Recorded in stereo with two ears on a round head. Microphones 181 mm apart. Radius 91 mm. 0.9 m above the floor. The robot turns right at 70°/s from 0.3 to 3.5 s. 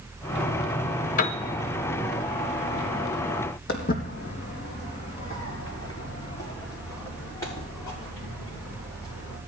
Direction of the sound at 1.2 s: 40° left (ahead or behind).